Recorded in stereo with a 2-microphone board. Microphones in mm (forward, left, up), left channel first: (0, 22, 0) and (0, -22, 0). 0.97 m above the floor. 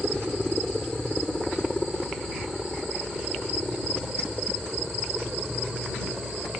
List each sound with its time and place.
0.0 s a helicopter: 5° left (ahead or behind); by 6.6 s 15° right (ahead or behind)